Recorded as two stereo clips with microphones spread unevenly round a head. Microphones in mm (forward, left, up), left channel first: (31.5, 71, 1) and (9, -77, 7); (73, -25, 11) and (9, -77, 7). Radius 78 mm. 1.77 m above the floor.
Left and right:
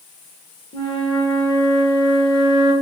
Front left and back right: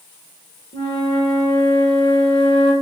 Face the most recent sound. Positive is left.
turn(degrees=20)